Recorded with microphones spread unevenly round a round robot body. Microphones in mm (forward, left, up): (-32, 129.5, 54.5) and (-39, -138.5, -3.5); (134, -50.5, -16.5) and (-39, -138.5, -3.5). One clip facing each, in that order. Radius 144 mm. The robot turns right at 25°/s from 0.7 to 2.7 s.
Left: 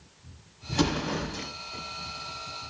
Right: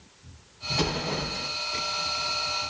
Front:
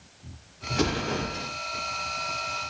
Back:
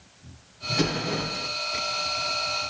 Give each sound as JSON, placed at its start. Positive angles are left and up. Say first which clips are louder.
{"t": 0.7, "sound": "an explosion", "louder": "left 3 dB, even", "azimuth_deg": 140, "distance_m": 1.2}